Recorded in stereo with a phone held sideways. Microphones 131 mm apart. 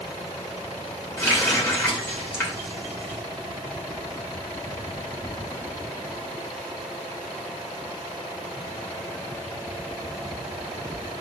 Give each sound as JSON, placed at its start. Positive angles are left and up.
{"t": 1.2, "sound": "a running tap", "side_deg": 20, "distance_m": 2.5}